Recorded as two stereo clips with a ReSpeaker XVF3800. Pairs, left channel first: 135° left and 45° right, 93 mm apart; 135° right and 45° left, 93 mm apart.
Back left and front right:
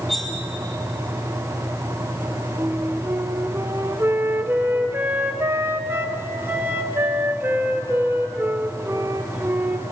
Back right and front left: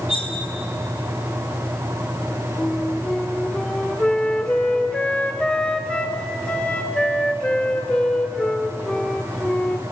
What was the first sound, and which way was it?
Cutlery clinking, 135° right.